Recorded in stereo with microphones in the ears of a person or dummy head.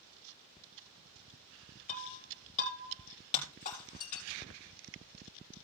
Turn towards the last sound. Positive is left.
turn(degrees=40)  # may be behind; listen again after turning